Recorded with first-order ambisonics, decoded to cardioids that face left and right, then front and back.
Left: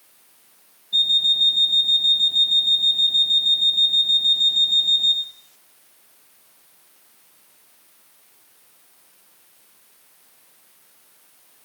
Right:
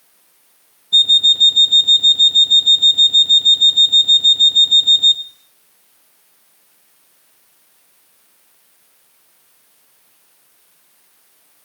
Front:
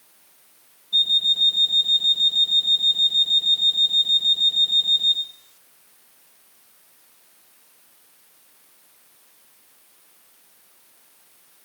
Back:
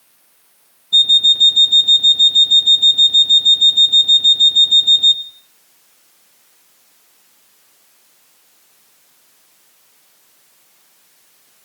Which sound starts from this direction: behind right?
An alarm clock, at 0.9 s.